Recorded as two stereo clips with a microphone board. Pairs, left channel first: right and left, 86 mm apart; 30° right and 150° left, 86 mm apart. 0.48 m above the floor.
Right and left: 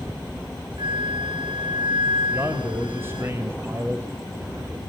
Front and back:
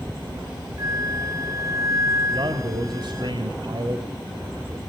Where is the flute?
95° left, 0.6 m.